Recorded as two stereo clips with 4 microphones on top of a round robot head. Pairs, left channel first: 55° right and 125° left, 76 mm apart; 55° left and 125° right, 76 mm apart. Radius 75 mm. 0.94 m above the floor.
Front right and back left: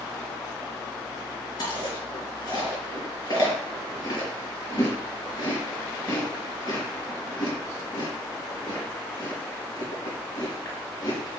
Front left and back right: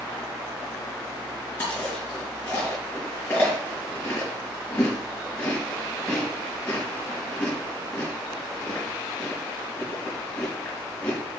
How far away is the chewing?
About 4 m.